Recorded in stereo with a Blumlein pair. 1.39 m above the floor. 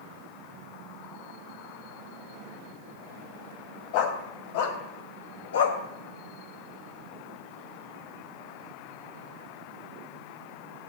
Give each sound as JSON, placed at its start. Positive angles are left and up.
{"t": 3.9, "sound": "a dog barking", "azimuth_deg": 45, "distance_m": 3.5}